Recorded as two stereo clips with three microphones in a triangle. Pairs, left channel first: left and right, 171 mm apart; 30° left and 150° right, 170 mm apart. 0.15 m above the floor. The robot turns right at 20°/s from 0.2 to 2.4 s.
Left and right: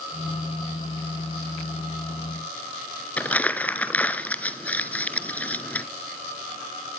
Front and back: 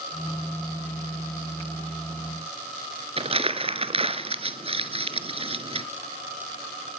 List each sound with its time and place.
3.2 s crumpling: 170° left, 0.9 m